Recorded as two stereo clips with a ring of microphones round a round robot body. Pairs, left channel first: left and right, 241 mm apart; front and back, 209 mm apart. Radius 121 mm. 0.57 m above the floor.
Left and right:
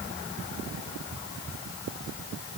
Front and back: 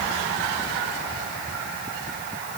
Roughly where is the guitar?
No guitar in this recording.